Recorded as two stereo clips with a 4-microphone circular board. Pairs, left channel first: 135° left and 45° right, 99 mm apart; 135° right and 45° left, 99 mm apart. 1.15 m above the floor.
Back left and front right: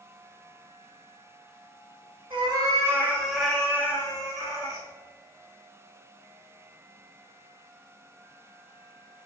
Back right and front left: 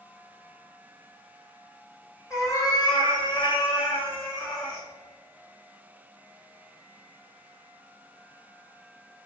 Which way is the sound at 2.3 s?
75° right.